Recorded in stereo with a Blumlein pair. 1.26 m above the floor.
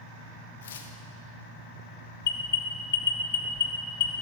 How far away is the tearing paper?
About 1.2 m.